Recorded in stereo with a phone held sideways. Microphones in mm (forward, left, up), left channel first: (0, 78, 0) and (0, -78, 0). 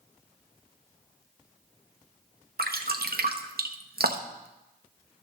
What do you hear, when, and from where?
2.6 s dripping: 75° right (ahead or behind), 1.0 m